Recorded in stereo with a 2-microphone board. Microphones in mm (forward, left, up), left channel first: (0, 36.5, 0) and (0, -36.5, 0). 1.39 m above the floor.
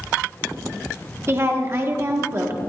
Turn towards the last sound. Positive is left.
turn(degrees=-35)  # may be behind; listen again after turning